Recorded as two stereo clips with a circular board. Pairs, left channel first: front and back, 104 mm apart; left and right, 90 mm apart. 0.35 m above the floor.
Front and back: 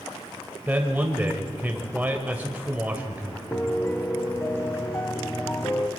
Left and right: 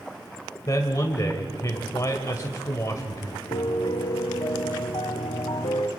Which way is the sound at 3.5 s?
65° left.